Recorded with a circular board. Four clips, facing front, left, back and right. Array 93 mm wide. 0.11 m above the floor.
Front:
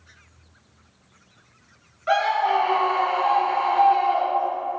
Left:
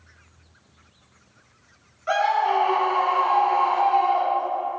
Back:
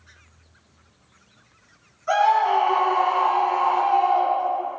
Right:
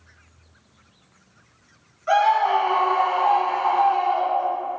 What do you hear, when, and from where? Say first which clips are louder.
2.1 s a scream: right 3 dB, back 2 dB; 15° left, 1.6 m